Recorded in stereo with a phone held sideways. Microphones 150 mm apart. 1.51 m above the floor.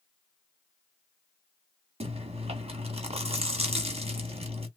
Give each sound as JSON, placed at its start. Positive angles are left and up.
{"t": 2.0, "sound": "chewing", "side_deg": -40, "distance_m": 1.0}